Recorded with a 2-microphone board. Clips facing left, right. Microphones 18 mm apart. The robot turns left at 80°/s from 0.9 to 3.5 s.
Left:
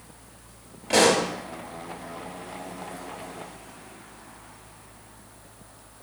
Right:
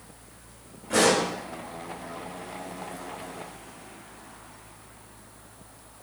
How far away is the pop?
About 1.5 m.